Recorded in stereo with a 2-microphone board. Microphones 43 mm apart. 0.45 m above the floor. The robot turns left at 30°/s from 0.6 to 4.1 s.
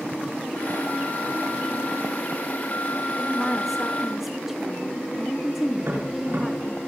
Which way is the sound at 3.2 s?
10° left (ahead or behind).